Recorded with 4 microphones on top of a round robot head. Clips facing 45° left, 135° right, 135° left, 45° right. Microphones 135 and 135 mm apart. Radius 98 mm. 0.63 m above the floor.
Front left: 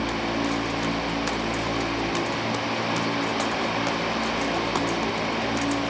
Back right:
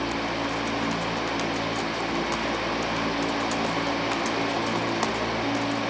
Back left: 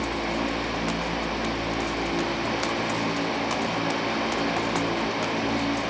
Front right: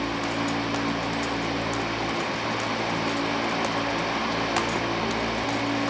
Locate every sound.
Only background noise.